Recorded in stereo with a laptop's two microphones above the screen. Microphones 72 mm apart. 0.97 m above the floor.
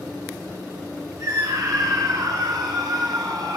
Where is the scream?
55° right (ahead or behind), 9 m; by 3.6 s 65° right (ahead or behind), 7 m.